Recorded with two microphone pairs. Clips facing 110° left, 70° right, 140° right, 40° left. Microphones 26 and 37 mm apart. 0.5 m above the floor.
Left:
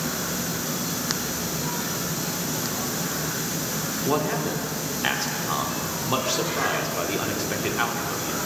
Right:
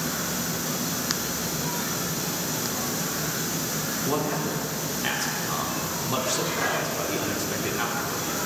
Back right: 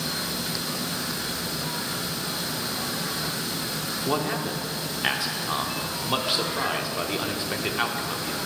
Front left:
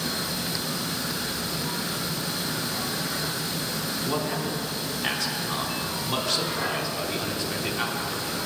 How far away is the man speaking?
About 0.8 m.